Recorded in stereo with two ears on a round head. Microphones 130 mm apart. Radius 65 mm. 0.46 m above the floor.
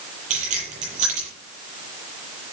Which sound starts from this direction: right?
Keys jangling, at 0.3 s.